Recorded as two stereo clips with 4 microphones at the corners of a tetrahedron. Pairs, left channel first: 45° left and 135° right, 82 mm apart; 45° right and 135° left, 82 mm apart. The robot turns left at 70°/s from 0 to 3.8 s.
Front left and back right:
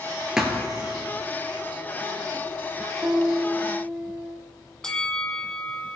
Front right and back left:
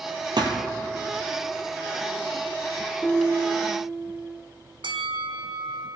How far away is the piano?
About 0.6 m.